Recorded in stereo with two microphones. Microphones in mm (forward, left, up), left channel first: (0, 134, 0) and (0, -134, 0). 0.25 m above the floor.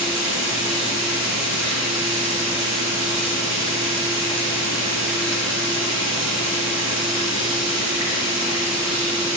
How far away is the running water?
About 3.5 m.